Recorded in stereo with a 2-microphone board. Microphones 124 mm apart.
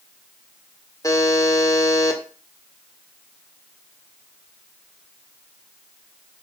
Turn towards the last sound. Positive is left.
turn(degrees=30)  # may be behind; listen again after turning